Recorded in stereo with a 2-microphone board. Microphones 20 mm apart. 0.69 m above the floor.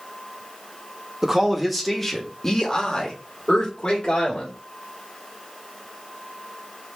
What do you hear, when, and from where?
1.2 s a man speaking: 20° right (ahead or behind), 0.8 m; by 4.5 s 50° left (ahead or behind), 1.8 m